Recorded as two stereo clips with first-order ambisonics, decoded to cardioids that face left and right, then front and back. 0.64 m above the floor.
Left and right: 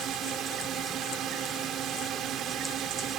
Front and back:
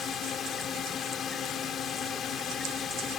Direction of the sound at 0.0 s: 50° right.